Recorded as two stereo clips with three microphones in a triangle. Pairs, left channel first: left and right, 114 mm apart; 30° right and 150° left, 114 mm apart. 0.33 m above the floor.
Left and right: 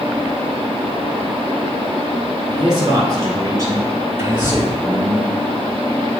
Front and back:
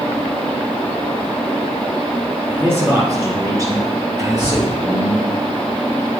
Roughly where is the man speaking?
Behind right.